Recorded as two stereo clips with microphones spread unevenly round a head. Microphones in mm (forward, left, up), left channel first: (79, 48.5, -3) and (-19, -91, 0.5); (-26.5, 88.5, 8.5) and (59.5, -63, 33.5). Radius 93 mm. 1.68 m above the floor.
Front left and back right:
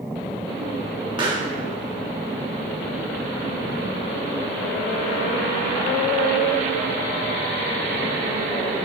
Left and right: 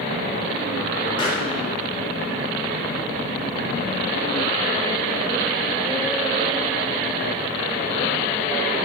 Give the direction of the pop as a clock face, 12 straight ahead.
6 o'clock.